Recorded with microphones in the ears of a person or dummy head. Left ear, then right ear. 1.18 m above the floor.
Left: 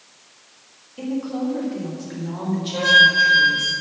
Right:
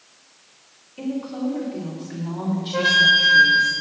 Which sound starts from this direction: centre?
A woman speaking, at 1.0 s.